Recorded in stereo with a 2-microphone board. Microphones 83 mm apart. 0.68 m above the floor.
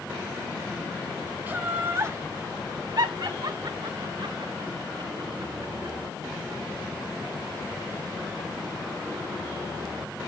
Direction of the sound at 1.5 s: 20° right (ahead or behind).